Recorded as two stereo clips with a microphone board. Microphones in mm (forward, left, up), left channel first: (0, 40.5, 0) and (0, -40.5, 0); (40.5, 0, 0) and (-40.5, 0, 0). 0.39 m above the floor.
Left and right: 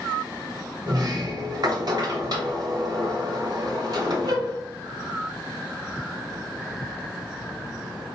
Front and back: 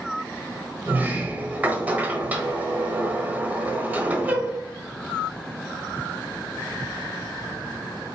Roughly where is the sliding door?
Behind right.